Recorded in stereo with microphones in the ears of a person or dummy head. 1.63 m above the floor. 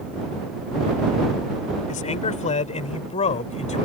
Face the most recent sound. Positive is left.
turn(degrees=30)  # may be behind; listen again after turning